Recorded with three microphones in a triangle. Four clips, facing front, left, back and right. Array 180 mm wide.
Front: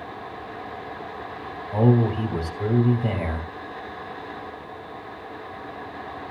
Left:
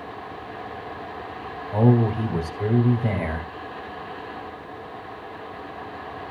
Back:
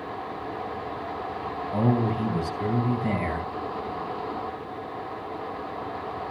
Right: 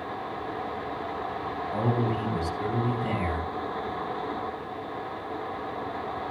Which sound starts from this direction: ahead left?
A man speaking, at 1.7 s.